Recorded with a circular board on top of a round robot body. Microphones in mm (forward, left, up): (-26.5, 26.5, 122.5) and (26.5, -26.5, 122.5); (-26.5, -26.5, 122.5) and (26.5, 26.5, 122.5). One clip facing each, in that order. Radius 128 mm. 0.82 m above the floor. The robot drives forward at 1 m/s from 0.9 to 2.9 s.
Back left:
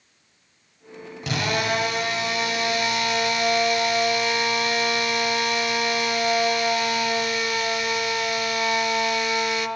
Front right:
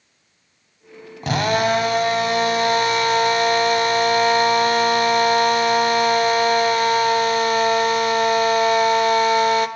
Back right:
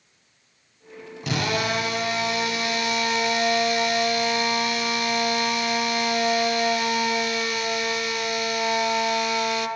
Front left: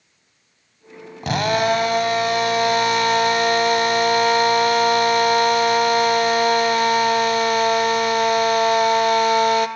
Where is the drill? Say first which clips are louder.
Front right 6 dB, front left 7 dB; straight ahead, 3 m.